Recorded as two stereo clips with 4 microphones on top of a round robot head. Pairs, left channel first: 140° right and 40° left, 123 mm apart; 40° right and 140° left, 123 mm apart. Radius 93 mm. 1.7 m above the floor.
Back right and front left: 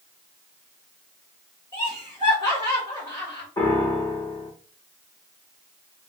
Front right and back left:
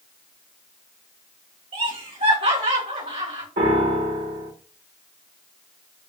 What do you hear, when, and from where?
1.7 s laughter: 165° left, 2.5 m
3.6 s a piano: 155° left, 2 m